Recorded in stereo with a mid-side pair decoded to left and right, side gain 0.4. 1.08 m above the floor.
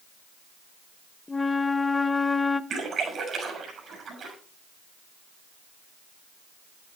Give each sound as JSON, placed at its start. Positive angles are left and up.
{"t": 1.3, "sound": "a flute", "azimuth_deg": 20, "distance_m": 0.8}
{"t": 2.7, "sound": "a splash", "azimuth_deg": -70, "distance_m": 6.0}